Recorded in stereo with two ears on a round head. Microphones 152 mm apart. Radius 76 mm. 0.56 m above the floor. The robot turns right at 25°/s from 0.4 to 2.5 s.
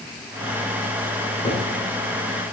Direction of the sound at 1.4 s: 25° left (ahead or behind).